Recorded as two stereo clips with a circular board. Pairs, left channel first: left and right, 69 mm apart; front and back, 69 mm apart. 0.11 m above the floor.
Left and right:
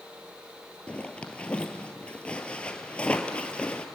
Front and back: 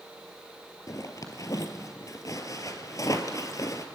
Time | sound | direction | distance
0.9 | a zipper | 20° left | 1.6 m